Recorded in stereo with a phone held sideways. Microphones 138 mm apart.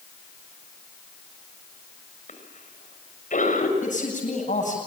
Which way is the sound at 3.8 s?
65° left (ahead or behind).